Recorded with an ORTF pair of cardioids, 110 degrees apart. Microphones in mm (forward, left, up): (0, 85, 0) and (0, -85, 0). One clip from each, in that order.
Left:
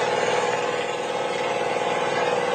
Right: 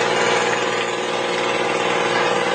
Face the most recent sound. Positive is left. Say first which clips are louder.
# right 4 dB
turn(degrees=-45)